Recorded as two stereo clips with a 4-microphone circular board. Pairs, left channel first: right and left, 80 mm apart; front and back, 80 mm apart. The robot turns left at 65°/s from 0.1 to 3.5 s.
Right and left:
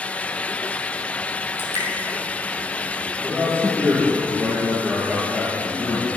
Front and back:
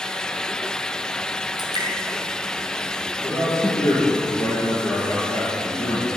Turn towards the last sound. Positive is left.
turn(degrees=25)